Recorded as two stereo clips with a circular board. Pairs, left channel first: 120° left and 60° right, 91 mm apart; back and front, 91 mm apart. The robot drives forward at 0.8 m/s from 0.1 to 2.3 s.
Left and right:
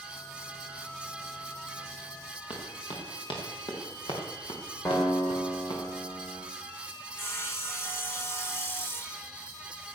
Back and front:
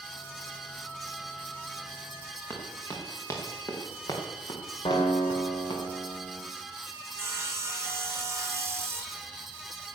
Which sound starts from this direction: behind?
A guitar, at 4.8 s.